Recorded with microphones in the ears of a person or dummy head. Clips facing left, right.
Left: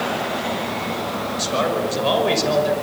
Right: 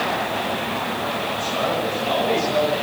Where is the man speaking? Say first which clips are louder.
Left 3 dB; 85° left, 5.5 m.